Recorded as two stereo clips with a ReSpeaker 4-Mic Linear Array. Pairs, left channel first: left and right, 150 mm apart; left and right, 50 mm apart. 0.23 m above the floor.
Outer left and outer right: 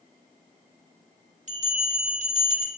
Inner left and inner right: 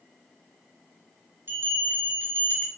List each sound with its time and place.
1.5 s a bell: 50° right (ahead or behind), 2 m